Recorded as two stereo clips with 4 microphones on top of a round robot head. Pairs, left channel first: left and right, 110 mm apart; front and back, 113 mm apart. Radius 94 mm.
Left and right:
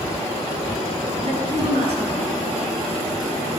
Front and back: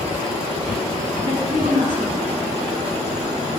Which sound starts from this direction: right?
A woman speaking, at 1.2 s.